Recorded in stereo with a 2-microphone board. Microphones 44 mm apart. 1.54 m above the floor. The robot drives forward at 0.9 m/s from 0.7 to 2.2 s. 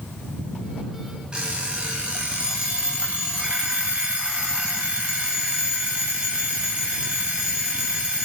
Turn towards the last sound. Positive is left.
turn(degrees=-20)  # may be behind; listen again after turning